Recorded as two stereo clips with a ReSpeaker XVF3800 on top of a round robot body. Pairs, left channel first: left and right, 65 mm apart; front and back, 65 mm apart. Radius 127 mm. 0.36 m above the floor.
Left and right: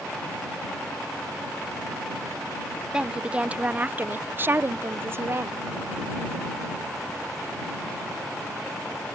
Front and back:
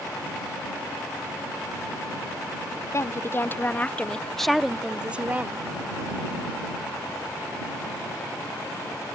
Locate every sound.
2.9 s a woman speaking: 15° right; by 5.7 s 125° right